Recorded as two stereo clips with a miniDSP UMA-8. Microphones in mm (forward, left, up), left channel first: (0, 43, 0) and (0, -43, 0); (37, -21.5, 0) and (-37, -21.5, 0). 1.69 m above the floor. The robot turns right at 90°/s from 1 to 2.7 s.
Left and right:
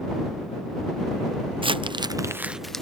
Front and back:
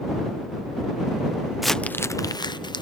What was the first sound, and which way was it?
Crumpling, 95° right.